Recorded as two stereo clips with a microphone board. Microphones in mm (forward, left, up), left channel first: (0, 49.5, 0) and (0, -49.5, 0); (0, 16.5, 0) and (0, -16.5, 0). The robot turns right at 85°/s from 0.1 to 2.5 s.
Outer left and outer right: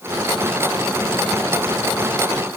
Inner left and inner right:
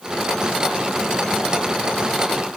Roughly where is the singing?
I don't hear singing.